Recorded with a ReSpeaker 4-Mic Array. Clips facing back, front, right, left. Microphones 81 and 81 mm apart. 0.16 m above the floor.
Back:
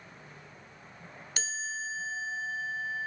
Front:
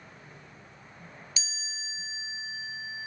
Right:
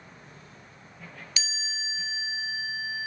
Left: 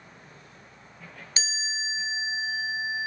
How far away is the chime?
About 1.1 m.